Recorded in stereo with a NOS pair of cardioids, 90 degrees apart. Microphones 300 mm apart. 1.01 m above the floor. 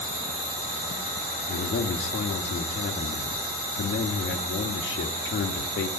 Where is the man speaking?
45° left, 1.6 m.